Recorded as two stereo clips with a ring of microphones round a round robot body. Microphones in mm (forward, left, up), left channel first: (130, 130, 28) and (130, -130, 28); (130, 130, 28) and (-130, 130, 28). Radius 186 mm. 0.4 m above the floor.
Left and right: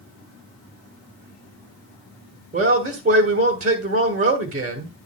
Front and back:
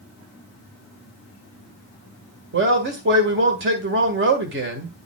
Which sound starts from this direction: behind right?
A man speaking, at 2.5 s.